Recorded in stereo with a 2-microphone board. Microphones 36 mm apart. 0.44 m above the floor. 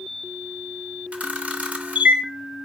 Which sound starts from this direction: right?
A camera shutter, at 1.1 s.